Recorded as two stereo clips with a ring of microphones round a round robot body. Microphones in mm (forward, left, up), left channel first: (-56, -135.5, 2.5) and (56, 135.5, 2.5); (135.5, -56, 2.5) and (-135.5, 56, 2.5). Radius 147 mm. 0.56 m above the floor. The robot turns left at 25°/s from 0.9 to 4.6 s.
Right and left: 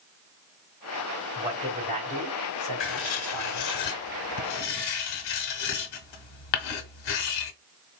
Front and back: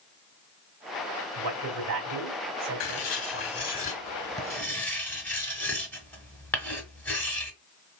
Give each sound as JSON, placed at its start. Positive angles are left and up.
{"t": 1.4, "sound": "a man speaking", "azimuth_deg": 150, "distance_m": 2.5}
{"t": 2.8, "sound": "writing", "azimuth_deg": -60, "distance_m": 0.9}